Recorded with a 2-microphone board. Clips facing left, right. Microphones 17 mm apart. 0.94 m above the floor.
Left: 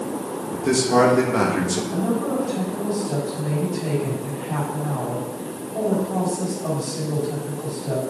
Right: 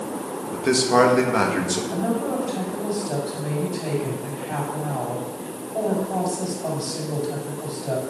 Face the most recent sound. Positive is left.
turn(degrees=-40)  # may be behind; listen again after turning